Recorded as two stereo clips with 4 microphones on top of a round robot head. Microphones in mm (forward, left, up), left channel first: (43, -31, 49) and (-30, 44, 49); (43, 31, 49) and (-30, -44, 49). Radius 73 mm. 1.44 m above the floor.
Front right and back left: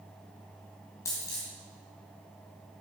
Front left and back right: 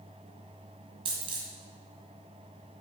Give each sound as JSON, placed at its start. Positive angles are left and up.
{"t": 1.1, "sound": "a dropped coin", "azimuth_deg": -105, "distance_m": 1.6}